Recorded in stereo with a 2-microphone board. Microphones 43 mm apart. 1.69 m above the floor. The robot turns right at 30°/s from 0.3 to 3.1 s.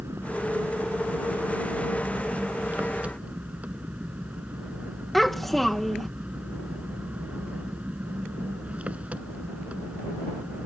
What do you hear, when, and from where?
0.0 s an engine running: 115° right; by 10.7 s 30° right
5.1 s a child speaking: 5° left (ahead or behind)